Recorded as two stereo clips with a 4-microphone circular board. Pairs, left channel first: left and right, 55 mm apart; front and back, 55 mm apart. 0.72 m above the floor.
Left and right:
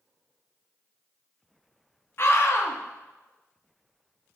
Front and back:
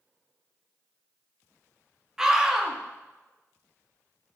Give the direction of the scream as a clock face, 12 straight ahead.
9 o'clock.